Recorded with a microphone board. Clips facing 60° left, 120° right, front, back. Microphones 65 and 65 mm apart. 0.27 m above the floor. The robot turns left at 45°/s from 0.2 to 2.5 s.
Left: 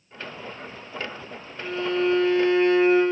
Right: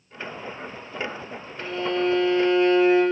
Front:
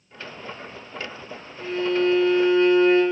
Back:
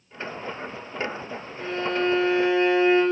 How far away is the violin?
About 3.5 m.